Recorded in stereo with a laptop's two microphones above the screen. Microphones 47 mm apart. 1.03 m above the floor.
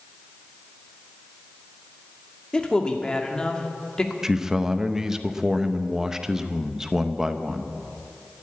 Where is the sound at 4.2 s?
10° right (ahead or behind), 0.7 m.